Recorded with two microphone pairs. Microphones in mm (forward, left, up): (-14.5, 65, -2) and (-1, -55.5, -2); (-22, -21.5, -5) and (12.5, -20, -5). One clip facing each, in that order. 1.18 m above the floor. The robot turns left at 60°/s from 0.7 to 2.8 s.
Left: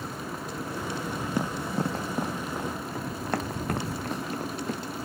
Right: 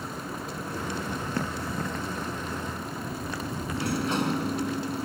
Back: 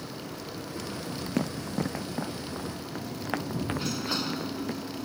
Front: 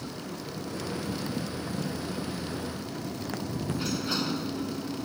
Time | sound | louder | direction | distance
1.4 | running footsteps | left 4 dB, back 3 dB | 170° left | ?
3.7 | a sliding door | right 5 dB, front 3 dB | 90° right | ?